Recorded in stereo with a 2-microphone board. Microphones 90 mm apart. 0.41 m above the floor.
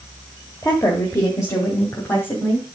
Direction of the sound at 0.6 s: 40° left (ahead or behind).